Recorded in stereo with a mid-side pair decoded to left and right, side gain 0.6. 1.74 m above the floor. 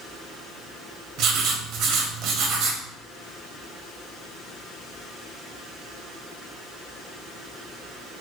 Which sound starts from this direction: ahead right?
Writing, at 1.2 s.